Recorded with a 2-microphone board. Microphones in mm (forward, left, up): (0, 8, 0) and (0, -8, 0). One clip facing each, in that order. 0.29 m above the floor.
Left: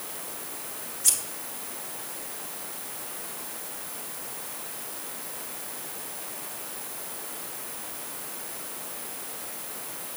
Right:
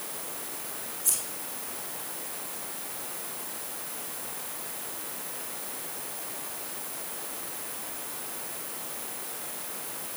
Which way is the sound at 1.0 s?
75° left (ahead or behind).